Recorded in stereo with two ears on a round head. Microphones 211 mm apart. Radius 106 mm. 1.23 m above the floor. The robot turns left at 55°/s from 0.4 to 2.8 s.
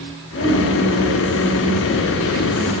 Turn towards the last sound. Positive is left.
turn(degrees=-5)